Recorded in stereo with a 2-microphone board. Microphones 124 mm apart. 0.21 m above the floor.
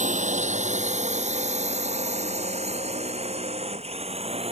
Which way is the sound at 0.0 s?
75° right (ahead or behind).